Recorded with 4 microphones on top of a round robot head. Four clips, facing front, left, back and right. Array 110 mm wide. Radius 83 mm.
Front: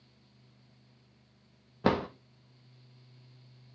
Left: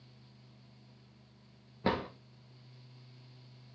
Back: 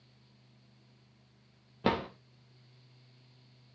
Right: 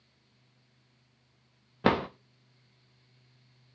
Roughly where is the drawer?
Right.